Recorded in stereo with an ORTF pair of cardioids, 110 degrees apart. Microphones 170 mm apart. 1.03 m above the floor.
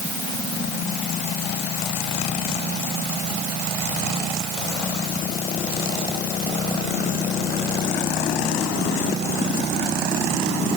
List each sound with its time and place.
Only background noise.